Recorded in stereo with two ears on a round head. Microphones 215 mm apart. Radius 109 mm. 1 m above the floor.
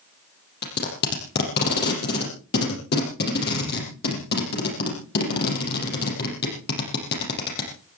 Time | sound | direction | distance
0.6 | tape being pulled | 45° left (ahead or behind) | 6 m